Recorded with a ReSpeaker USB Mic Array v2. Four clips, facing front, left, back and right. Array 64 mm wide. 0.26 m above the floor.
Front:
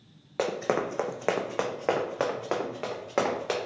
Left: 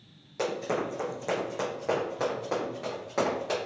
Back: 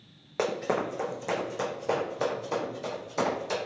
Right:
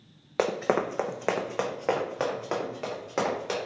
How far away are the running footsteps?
About 0.6 m.